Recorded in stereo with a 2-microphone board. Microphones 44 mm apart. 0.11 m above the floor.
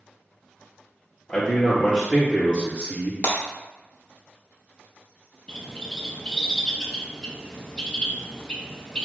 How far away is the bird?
About 0.6 m.